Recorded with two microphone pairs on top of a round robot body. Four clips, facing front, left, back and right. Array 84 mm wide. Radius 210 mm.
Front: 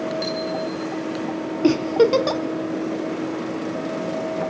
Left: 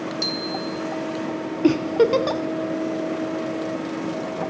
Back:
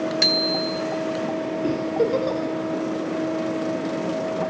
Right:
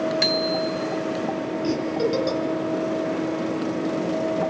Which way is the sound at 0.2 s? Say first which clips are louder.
Right 5 dB, back 1 dB; 135° right.